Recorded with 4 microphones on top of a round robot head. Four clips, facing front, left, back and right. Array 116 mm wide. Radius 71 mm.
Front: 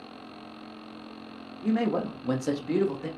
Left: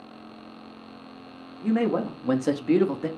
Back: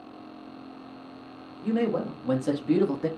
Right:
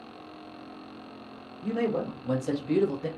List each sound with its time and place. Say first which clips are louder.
1.6 s a man speaking: left 4 dB, even; 60° left, 1.8 m; by 3.1 s 130° left, 0.9 m